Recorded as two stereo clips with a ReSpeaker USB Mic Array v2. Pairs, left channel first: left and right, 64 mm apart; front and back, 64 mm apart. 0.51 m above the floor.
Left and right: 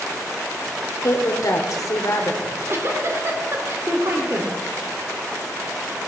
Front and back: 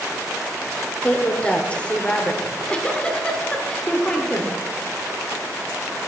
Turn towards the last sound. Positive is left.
turn(degrees=-65)